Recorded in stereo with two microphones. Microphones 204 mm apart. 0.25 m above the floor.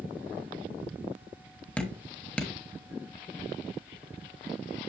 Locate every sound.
1.8 s dripping: 5° left (ahead or behind), 1.1 m